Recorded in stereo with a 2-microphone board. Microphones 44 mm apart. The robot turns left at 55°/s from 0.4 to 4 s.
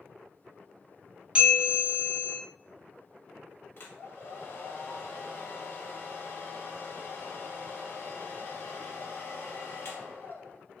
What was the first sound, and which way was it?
A bell, 140° right.